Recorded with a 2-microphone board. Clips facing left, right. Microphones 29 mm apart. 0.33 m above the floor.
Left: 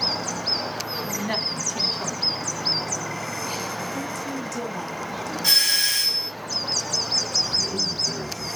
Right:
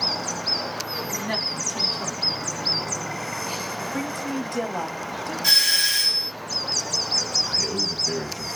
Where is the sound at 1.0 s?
5° left (ahead or behind), 3 m.